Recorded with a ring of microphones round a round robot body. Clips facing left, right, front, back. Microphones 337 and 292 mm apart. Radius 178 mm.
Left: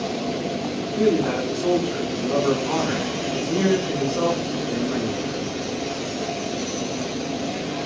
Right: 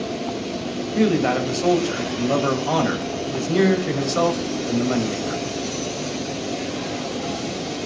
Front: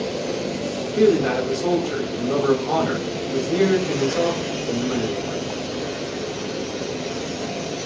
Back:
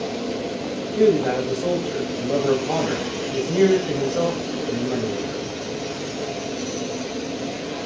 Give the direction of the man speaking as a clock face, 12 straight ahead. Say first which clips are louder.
Right 1 dB, even; 3 o'clock.